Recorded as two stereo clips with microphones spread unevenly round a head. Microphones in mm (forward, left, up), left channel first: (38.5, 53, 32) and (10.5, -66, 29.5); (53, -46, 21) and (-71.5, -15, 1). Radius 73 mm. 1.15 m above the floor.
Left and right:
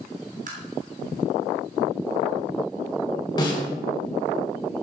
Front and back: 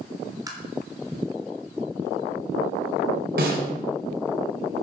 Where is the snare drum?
140° left, 4 m.